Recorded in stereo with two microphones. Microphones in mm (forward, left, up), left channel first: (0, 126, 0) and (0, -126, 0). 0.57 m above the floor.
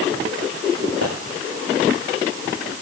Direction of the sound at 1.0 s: 65° right (ahead or behind).